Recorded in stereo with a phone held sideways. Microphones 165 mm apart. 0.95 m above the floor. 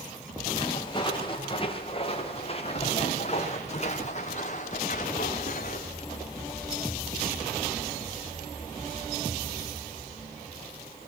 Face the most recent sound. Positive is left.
turn(degrees=55)  # may be behind; listen again after turning